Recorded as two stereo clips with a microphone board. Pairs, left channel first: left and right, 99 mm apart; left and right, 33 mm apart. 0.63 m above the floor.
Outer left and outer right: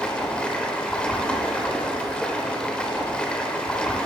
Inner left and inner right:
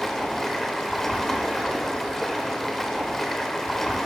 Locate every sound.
0.0 s running water: 10° left (ahead or behind), 0.8 m